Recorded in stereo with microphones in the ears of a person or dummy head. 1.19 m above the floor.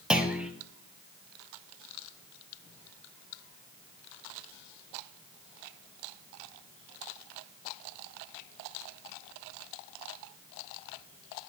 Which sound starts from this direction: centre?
A clunk, at 0.1 s.